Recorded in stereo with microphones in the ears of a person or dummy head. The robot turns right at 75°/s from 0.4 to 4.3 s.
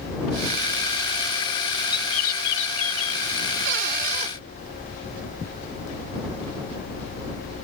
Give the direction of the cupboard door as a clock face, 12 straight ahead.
3 o'clock.